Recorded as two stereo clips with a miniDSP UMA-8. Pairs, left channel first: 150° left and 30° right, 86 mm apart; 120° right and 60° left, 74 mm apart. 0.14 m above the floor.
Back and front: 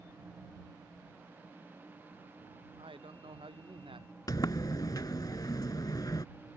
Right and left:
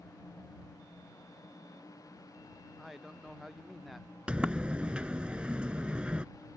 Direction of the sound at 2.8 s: 25° right.